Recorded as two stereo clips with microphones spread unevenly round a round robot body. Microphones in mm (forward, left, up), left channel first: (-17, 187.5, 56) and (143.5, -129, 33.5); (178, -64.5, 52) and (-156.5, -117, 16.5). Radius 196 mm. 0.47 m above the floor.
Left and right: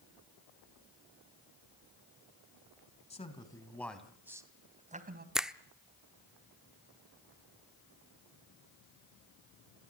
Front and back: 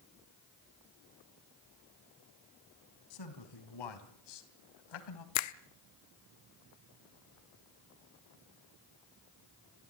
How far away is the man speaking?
About 3.5 m.